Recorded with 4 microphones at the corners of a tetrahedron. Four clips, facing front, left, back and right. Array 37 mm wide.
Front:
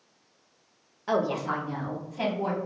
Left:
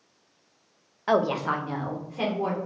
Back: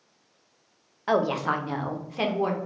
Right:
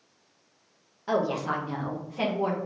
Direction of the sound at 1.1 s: 125° left.